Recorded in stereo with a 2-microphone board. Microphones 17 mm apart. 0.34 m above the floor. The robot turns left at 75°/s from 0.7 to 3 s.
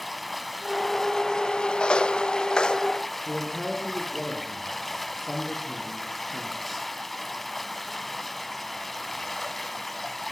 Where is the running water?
Straight behind, 1.8 m; by 10.3 s 10° left, 1.8 m.